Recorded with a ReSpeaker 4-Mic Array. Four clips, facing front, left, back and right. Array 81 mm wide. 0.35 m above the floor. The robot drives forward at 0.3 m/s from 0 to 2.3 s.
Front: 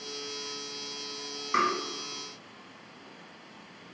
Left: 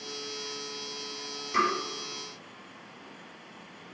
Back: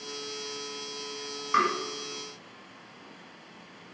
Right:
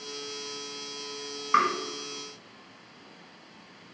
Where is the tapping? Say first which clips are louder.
Right 3 dB, back 2 dB; 105° right, 1.2 m.